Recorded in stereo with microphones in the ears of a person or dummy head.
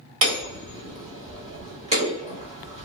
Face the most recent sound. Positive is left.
turn(degrees=-30)  # may be behind; listen again after turning